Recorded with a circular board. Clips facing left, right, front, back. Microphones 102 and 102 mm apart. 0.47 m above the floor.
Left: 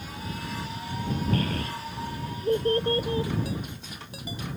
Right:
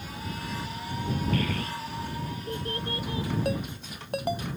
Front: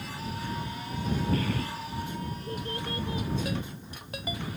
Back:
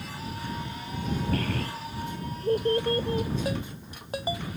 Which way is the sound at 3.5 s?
120° right.